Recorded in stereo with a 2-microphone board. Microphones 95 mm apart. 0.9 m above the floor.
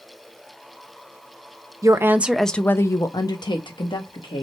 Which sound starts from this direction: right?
A woman speaking, at 1.8 s.